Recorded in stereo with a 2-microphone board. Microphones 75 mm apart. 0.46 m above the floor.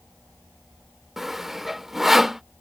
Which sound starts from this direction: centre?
Sawing, at 1.2 s.